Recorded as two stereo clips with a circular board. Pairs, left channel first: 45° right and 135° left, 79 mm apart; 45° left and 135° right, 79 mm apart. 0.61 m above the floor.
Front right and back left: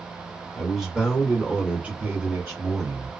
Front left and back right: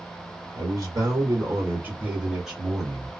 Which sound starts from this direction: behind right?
A man speaking, at 0.5 s.